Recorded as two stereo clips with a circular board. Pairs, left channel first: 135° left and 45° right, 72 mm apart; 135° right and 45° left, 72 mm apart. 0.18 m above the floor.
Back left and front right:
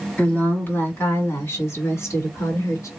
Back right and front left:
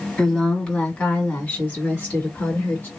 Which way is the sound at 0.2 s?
165° left.